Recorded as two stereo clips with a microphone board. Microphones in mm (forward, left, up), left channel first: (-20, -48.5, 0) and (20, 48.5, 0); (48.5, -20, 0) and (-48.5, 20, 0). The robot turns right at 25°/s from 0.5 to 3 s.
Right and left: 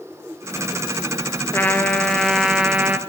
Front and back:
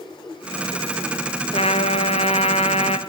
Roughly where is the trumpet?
Ahead right.